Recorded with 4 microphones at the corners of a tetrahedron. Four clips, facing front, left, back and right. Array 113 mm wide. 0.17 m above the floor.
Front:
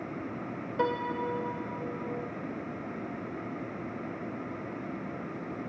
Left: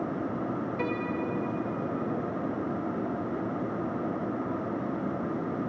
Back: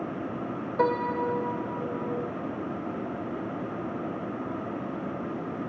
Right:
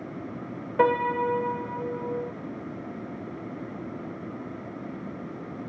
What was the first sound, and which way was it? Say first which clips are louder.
A piano: right 13 dB, back 5 dB; 110° right.